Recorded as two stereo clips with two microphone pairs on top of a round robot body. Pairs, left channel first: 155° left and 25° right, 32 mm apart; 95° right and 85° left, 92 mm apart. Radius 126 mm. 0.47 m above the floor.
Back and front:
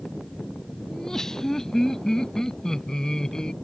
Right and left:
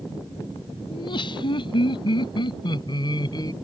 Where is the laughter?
130° right; by 3.5 s 135° right.